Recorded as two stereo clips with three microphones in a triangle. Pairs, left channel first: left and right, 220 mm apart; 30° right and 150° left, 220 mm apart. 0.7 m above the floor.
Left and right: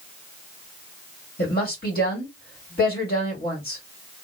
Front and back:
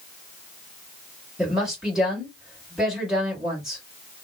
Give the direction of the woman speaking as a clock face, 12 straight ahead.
10 o'clock.